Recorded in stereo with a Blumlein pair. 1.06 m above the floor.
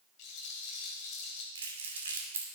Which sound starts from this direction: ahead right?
Crumpling, at 1.6 s.